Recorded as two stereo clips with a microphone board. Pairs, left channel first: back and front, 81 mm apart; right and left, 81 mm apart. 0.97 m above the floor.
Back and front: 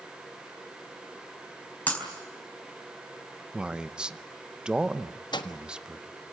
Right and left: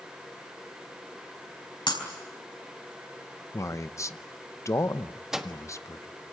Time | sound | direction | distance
1.9 | breaking glass | 110° right | 4.5 m
3.5 | a man speaking | 70° right | 0.8 m
5.3 | a microwave | 170° left | 1.3 m